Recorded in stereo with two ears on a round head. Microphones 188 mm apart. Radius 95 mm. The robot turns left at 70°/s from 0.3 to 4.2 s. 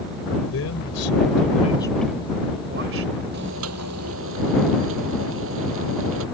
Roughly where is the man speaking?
Left.